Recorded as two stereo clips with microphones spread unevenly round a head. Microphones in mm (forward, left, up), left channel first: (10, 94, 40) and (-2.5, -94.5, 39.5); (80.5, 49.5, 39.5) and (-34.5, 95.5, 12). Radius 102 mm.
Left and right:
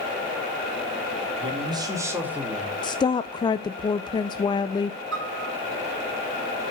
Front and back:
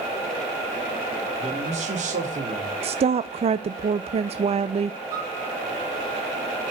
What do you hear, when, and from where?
1.4 s a man speaking: 155° right, 3 m; by 2.7 s 175° left, 3 m
2.8 s a woman speaking: 150° left, 0.5 m
5.1 s a piano: 125° right, 3.5 m